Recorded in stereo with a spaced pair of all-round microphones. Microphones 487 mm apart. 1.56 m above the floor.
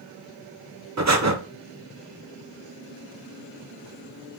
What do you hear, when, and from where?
1.0 s breathing: 35° right (ahead or behind), 0.6 m